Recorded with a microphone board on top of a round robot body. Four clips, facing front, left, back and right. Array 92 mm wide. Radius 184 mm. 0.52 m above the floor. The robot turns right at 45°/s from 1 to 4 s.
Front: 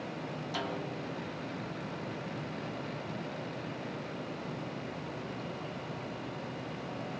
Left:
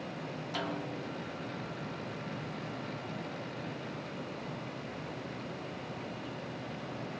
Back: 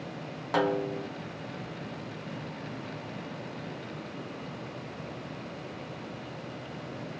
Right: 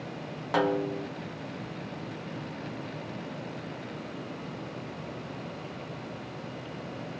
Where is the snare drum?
130° right, 0.7 m; by 1.1 s 125° right, 0.7 m.